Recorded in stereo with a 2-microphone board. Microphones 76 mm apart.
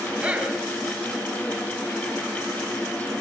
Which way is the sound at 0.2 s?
15° right (ahead or behind).